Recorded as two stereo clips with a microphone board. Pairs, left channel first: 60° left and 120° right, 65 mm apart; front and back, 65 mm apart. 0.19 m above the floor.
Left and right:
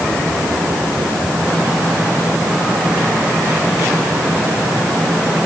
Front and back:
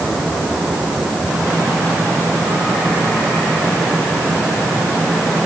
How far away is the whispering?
No whispering in this recording.